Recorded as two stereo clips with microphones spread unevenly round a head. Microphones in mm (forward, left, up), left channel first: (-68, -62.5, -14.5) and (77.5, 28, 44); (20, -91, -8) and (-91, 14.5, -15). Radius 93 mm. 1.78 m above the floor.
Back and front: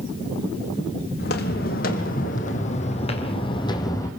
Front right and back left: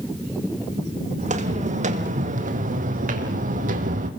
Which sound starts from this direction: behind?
Footsteps, at 1.2 s.